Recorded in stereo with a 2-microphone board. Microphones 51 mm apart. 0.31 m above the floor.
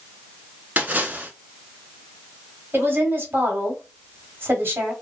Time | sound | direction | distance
0.8 | a splash | 30° right (ahead or behind) | 0.7 m
2.7 | a woman speaking | 40° right (ahead or behind) | 1.3 m